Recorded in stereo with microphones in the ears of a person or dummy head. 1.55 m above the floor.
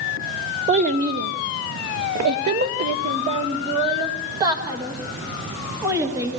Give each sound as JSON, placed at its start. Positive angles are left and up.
{"t": 0.7, "sound": "a child speaking", "side_deg": -40, "distance_m": 0.8}